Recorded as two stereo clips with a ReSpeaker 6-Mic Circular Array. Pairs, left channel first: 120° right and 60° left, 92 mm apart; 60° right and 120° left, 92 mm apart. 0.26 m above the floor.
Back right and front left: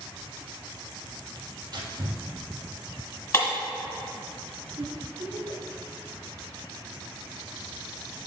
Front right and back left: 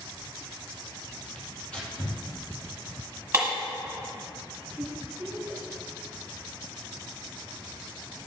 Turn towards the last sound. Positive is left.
turn(degrees=55)